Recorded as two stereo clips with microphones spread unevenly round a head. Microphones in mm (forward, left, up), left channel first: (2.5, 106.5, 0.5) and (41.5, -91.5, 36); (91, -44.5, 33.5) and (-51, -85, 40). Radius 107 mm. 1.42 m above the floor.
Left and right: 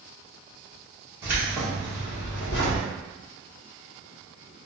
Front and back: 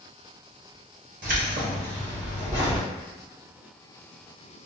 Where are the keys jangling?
150° right, 1.0 m; by 2.9 s 120° left, 0.9 m.